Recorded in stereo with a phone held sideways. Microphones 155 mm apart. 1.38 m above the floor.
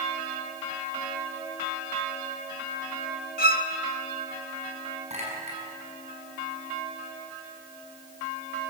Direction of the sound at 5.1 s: 45° right (ahead or behind).